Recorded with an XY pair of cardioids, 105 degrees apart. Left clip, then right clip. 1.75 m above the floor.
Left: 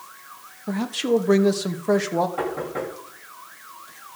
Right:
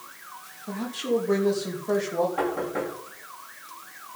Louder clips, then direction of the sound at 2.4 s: Even; straight ahead.